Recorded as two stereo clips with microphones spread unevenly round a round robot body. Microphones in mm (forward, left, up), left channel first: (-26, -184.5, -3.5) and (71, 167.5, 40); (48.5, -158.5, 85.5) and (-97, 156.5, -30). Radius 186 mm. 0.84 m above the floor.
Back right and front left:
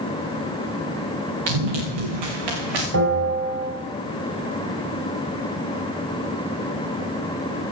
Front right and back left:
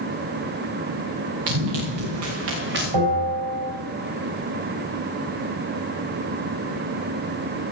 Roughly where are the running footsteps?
Left.